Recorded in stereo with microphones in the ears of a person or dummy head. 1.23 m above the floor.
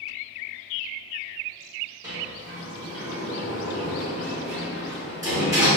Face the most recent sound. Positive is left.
turn(degrees=-15)  # may be behind; listen again after turning